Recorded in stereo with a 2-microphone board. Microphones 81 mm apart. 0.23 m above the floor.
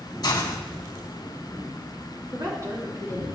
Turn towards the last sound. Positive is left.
turn(degrees=-45)  # may be behind; listen again after turning